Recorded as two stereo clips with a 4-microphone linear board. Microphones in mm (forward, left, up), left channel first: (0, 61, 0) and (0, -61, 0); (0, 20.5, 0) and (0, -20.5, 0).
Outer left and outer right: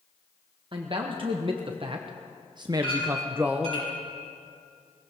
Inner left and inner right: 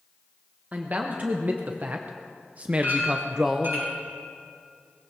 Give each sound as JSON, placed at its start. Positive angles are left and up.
{"t": 0.7, "sound": "a man speaking", "side_deg": -40, "distance_m": 1.3}
{"t": 2.8, "sound": "a clink", "side_deg": -55, "distance_m": 6.0}